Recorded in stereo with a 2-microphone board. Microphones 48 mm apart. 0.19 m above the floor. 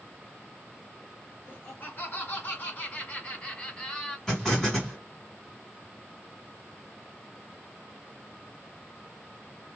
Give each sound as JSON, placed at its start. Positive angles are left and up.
{"t": 1.5, "sound": "laughter", "side_deg": 45, "distance_m": 2.5}
{"t": 4.3, "sound": "an explosion", "side_deg": 10, "distance_m": 2.5}